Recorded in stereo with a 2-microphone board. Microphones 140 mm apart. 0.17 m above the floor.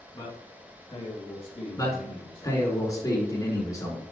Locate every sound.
0.1 s a man speaking: 25° left (ahead or behind), 2 m; by 2.7 s 50° left (ahead or behind), 3.5 m
1.8 s a man speaking: 25° left (ahead or behind), 2.5 m